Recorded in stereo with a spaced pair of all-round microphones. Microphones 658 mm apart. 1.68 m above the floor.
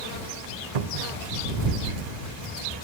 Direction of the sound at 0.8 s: 65° right (ahead or behind).